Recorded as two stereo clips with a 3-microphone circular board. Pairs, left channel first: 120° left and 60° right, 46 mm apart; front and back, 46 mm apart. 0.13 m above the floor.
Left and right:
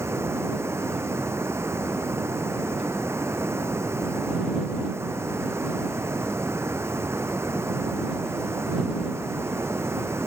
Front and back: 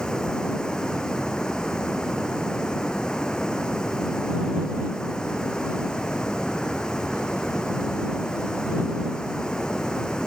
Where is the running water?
75° right.